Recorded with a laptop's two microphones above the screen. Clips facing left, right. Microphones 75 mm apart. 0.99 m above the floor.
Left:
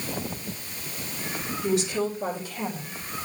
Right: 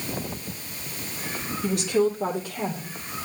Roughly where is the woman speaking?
Right.